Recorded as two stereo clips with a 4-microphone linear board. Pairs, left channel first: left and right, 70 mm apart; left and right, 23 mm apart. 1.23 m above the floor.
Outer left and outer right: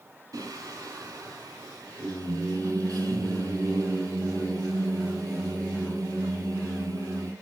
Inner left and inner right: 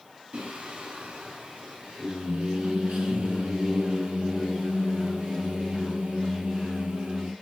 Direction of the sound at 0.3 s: 55° right (ahead or behind).